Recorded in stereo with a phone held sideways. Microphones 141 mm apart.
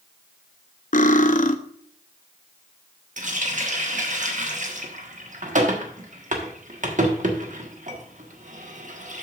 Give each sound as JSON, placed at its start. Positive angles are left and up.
{"t": 0.9, "sound": "cutlery clinking", "side_deg": 65, "distance_m": 0.6}
{"t": 3.2, "sound": "a running tap", "side_deg": -60, "distance_m": 1.3}